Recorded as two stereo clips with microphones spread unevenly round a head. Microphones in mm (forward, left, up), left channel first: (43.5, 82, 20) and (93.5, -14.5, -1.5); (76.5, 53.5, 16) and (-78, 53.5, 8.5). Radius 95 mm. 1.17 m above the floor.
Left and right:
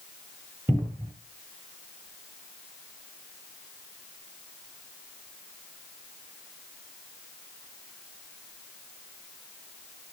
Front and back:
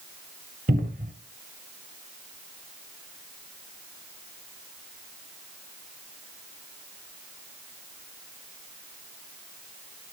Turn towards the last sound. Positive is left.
turn(degrees=-135)